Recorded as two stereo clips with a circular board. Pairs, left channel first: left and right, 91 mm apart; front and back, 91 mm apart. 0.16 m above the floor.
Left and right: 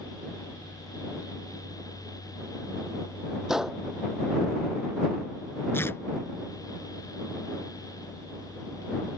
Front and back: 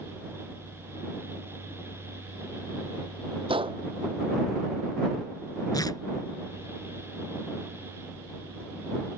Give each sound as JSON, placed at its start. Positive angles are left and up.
{"t": 3.5, "sound": "a gunshot", "azimuth_deg": -175}
{"t": 5.7, "sound": "tearing paper", "azimuth_deg": 35}